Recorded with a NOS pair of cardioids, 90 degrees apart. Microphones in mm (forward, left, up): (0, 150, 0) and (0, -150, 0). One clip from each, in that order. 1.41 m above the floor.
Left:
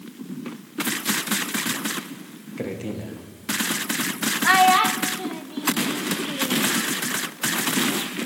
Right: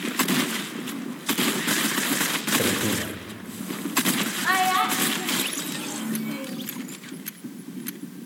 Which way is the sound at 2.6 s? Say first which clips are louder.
Right 7 dB; 25° right.